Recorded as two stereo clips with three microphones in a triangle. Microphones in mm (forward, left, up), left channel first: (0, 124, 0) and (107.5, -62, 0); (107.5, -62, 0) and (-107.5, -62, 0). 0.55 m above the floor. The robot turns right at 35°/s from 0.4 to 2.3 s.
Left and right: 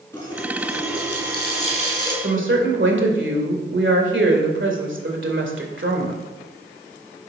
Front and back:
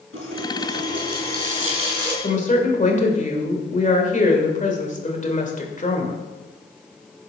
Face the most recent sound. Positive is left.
turn(degrees=-50)